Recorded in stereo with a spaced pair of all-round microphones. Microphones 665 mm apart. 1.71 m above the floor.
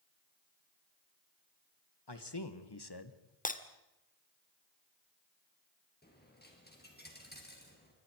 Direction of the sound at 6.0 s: 15° left (ahead or behind).